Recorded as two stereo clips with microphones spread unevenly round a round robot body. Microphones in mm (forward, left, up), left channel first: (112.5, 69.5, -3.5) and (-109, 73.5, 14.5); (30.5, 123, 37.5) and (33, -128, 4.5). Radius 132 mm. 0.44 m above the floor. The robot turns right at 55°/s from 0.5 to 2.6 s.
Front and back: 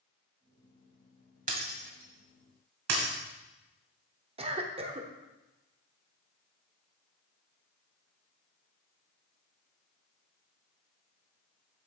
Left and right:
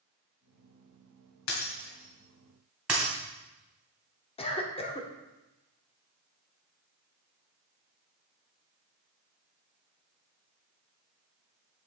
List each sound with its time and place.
1.5 s breaking glass: 125° left, 1.8 m; by 3.1 s 175° right, 1.8 m
4.4 s a cough: 145° left, 1.0 m